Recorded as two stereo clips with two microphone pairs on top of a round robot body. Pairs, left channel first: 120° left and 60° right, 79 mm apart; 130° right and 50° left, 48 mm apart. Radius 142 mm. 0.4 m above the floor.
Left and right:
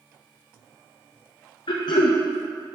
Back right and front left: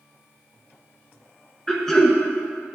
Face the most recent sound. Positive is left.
turn(degrees=150)